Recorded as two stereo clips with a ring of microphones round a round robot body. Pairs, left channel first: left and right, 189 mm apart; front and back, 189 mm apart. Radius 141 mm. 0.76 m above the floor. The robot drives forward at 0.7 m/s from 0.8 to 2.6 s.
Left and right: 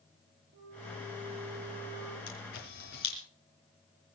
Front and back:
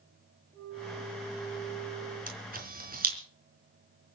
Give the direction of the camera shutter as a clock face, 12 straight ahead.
7 o'clock.